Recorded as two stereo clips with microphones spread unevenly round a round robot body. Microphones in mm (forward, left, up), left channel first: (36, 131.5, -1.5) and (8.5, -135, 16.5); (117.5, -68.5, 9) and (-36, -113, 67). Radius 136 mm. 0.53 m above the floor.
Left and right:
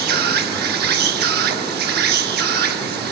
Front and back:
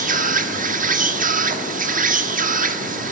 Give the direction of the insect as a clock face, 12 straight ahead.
4 o'clock.